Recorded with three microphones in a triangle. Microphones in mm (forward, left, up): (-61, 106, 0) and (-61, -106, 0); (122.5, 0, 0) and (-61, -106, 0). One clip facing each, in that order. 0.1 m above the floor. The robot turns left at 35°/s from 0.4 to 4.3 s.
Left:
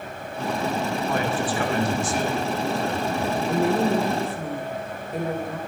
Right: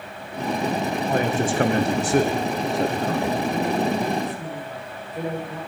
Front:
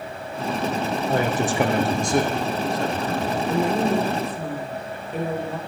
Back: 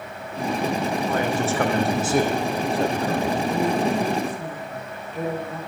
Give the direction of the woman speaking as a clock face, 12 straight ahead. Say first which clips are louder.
Left 2 dB, front 3 dB; 9 o'clock.